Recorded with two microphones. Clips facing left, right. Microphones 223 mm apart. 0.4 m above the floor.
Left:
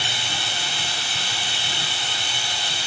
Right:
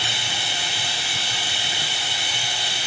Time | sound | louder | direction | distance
0.0 | running water | even | 15° right (ahead or behind) | 5 m